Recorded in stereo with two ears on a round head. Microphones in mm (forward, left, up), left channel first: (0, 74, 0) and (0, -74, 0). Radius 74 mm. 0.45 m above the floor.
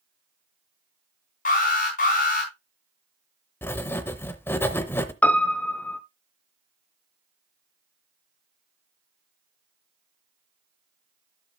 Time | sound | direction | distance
1.4 | an alarm | 50° left (ahead or behind) | 5 m
3.6 | writing | 15° left (ahead or behind) | 0.7 m
5.2 | a piano | 10° left (ahead or behind) | 0.6 m